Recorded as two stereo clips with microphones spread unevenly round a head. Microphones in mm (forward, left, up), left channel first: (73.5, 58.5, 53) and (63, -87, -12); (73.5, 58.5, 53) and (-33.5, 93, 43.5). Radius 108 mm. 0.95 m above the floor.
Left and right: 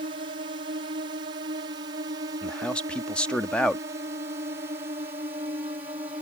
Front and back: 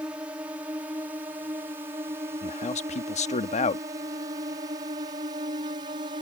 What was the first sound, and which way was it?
A drone, 120° right.